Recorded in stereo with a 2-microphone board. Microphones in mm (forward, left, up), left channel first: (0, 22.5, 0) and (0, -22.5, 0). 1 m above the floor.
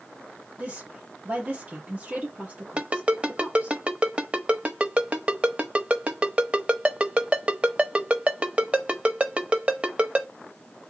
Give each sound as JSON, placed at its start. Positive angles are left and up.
{"t": 0.6, "sound": "a woman speaking", "side_deg": -30, "distance_m": 2.0}
{"t": 2.8, "sound": "a ringtone", "side_deg": -30, "distance_m": 0.6}